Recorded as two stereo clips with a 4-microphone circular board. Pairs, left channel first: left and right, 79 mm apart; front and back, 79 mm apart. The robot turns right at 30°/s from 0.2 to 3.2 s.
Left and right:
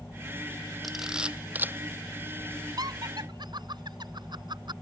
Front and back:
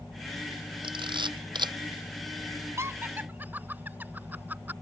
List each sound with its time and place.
0.8 s a camera shutter: straight behind; by 1.7 s 155° right
2.8 s laughter: 125° right; by 4.7 s 110° right